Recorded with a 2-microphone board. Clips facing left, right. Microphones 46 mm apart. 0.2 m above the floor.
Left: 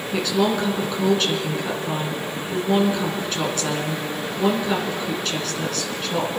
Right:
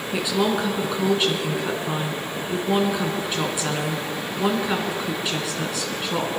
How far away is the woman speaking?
About 2.5 m.